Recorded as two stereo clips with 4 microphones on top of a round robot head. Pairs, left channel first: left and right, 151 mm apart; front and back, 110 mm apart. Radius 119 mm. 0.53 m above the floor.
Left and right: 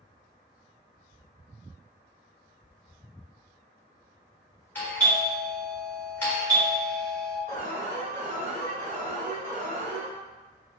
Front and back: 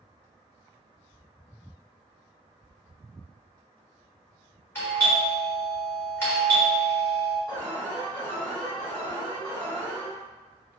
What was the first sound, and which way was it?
A doorbell, 30° left.